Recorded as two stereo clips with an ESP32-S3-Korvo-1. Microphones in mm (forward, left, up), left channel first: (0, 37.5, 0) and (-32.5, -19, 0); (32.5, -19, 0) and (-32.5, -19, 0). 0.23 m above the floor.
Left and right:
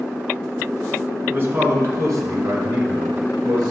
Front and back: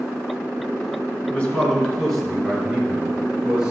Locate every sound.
1.3 s a man speaking: 70° right, 3 m; by 3.7 s 105° right, 5.5 m